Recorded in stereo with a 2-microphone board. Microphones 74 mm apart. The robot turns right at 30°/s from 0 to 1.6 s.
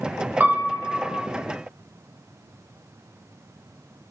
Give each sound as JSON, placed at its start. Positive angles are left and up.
{"t": 0.4, "sound": "a piano", "side_deg": -25, "distance_m": 0.5}